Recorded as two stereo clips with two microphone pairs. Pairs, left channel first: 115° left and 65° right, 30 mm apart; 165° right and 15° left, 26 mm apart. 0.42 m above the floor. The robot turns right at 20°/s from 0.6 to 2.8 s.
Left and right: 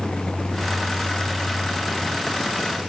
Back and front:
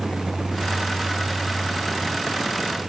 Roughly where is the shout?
No shout in this recording.